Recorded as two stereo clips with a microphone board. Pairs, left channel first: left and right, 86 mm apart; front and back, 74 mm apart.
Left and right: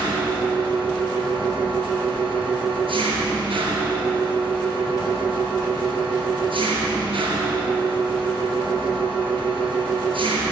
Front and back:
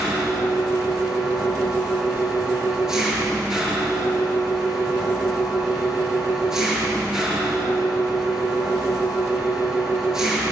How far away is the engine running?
About 6.5 m.